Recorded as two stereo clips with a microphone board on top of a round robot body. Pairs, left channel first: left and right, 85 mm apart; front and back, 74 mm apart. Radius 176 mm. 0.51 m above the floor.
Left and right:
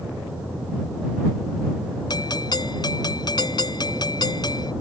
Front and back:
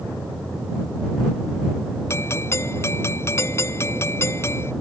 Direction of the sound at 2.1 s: 55° left.